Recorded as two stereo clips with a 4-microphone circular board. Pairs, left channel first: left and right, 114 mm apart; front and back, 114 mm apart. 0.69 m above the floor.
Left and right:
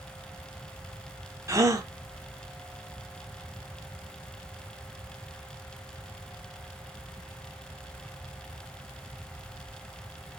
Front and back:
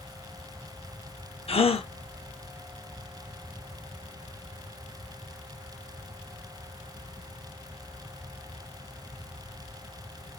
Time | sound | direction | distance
1.5 | a gasp | 30° right | 0.6 m